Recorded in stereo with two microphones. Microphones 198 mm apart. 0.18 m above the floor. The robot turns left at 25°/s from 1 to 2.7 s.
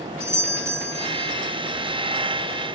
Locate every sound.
0.2 s a doorbell: 10° right (ahead or behind), 1.6 m; by 1.3 s 15° right (ahead or behind), 1.6 m